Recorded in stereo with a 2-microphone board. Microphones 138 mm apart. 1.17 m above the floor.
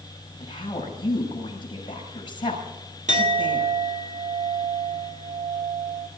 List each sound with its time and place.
0.4 s a woman speaking: 35° left (ahead or behind), 7 m
3.1 s a clink: 60° right (ahead or behind), 2.0 m